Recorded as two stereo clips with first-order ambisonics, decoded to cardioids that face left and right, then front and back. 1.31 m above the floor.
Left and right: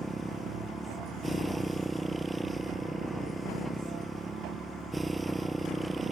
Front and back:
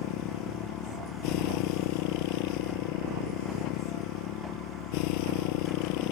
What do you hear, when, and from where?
0.0 s a motorcycle: 5° right